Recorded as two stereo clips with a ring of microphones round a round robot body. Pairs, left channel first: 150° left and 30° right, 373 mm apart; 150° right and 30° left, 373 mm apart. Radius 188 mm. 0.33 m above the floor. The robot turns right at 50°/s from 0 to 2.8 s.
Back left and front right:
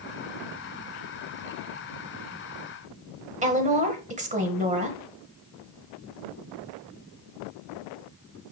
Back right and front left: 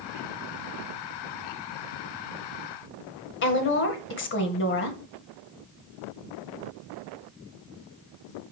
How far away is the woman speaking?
About 1.9 m.